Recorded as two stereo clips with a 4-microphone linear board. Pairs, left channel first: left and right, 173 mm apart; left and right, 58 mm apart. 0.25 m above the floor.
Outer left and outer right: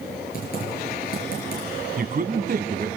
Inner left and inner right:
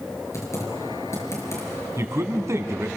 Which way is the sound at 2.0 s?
60° right (ahead or behind).